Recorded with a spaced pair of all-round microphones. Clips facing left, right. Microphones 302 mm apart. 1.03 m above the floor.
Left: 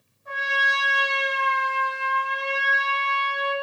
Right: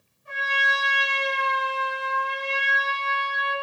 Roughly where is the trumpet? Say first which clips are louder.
Left 1 dB; left.